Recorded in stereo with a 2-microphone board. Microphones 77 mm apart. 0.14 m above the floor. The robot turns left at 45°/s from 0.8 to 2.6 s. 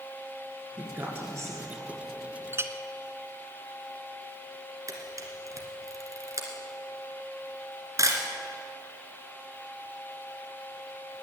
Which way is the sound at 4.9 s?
45° right (ahead or behind).